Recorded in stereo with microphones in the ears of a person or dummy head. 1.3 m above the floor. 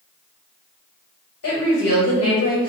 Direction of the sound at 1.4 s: 80° left.